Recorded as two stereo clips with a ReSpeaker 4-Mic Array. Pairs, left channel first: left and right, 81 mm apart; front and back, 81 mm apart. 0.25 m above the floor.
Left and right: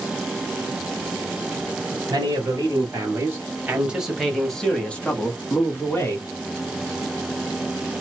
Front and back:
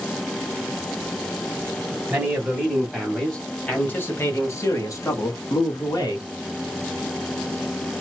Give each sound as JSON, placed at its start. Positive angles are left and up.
{"t": 2.1, "sound": "a man speaking", "azimuth_deg": -110, "distance_m": 1.4}